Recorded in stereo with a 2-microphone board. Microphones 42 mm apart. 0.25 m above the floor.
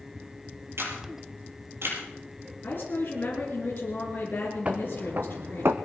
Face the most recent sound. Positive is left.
turn(degrees=-75)  # may be behind; listen again after turning